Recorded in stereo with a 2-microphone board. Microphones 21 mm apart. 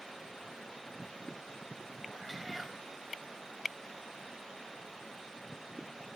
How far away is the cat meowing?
About 1.0 m.